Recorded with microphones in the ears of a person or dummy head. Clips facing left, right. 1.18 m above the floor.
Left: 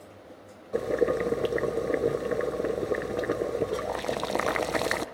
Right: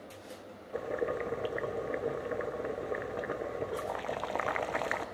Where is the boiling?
55° left (ahead or behind), 0.5 m.